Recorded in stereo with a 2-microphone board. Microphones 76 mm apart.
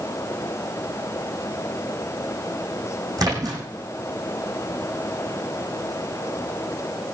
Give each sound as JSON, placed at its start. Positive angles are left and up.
{"t": 3.2, "sound": "a splash", "side_deg": -55, "distance_m": 7.0}